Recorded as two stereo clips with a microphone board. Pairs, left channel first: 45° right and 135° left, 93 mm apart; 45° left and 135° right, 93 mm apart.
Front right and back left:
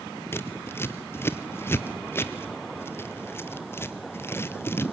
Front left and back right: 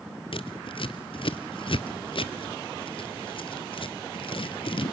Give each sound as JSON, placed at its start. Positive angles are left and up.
{"t": 0.3, "sound": "scissors", "azimuth_deg": 20, "distance_m": 0.9}